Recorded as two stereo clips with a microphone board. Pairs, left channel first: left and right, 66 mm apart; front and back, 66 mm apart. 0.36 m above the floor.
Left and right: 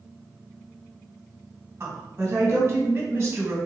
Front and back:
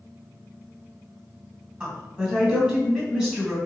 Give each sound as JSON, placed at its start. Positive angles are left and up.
{"t": 1.8, "sound": "a woman speaking", "azimuth_deg": -125, "distance_m": 1.5}